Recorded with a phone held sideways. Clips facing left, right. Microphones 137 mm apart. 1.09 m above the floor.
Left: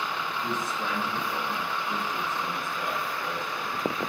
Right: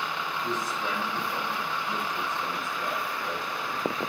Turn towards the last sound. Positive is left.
turn(degrees=0)  # may be behind; listen again after turning